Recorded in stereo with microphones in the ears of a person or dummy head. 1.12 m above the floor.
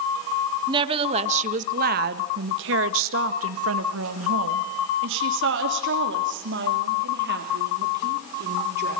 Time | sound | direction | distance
0.7 | a woman speaking | 30° right (ahead or behind) | 1.4 m